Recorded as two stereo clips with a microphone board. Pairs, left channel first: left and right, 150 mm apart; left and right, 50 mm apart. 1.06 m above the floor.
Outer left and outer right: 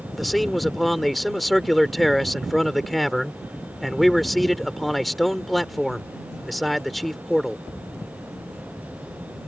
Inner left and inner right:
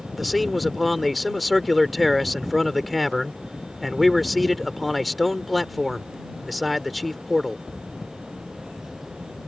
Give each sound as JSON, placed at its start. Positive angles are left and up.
{"t": 0.2, "sound": "a man speaking", "side_deg": 0}